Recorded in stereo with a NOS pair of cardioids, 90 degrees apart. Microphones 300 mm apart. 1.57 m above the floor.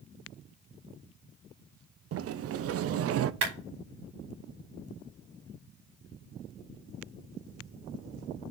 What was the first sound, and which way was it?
A sliding door, 50° right.